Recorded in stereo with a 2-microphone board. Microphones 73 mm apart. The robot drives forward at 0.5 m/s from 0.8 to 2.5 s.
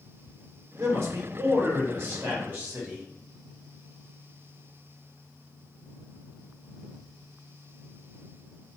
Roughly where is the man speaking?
Right.